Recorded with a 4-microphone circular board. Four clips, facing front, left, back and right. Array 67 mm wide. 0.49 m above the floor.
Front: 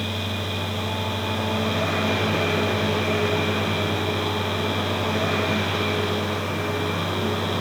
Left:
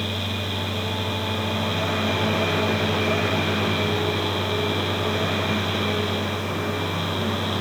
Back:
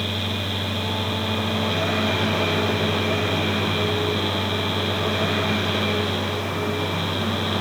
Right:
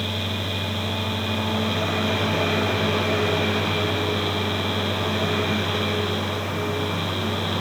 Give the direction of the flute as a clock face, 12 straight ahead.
No flute in this recording.